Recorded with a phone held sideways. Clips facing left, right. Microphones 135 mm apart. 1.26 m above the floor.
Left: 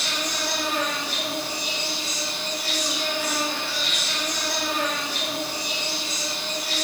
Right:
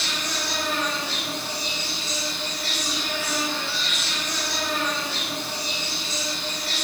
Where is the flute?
I don't hear a flute.